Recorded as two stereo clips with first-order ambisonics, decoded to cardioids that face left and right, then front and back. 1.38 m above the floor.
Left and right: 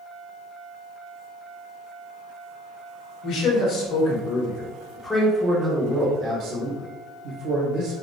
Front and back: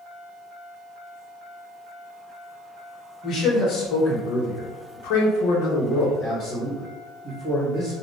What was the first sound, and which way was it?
A man speaking, 55° left.